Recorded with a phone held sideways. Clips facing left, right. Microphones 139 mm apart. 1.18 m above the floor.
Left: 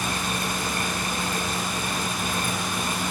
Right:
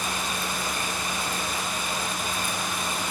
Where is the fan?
65° left (ahead or behind), 8 m.